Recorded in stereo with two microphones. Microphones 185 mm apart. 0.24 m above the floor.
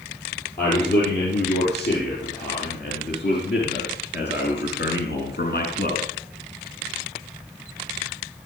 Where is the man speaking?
65° left (ahead or behind), 8 m; by 6.0 s 55° left (ahead or behind), 3 m.